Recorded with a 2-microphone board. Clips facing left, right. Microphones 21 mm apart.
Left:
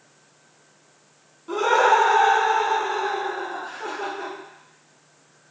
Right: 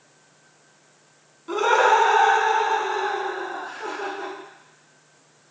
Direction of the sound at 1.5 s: 20° right (ahead or behind).